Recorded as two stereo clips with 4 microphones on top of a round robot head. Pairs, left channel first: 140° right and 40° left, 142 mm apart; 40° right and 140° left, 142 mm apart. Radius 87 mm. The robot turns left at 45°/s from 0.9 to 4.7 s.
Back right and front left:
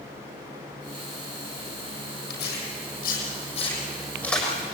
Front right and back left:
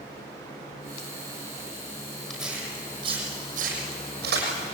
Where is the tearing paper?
130° right, 6.5 m; by 4.5 s 130° left, 6.5 m.